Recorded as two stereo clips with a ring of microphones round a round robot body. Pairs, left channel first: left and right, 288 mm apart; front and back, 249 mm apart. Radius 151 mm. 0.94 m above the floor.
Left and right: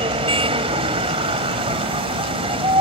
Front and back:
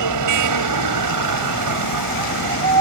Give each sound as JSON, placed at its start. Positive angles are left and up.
{"t": 0.0, "sound": "a vehicle", "azimuth_deg": -165}